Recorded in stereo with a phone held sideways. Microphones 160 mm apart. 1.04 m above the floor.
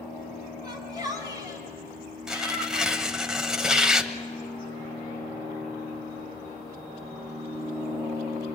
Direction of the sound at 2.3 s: 5° right (ahead or behind).